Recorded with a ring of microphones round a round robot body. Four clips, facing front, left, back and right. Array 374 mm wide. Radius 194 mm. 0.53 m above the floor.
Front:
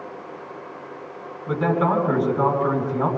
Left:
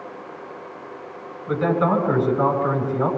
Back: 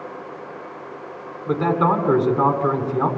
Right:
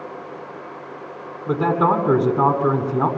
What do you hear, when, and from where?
1.5 s a man speaking: 100° right, 6 m